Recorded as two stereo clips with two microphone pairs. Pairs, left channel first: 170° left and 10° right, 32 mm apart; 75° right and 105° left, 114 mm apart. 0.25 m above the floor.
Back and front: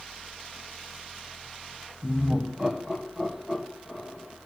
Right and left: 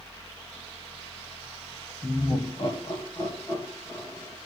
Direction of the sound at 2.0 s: 45° right.